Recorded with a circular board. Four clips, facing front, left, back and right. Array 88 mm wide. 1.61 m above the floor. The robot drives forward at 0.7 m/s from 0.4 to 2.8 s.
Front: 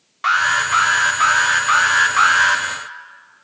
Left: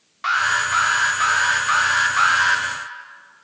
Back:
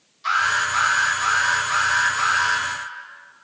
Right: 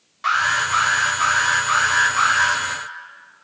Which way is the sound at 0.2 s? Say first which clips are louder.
Even, front 4 dB; 10° left.